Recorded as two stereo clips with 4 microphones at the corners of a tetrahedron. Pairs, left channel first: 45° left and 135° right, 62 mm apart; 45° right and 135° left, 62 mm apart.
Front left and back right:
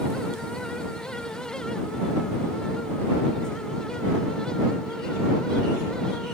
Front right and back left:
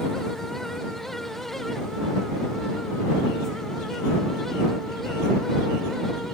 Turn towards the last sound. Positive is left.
No sound to turn to.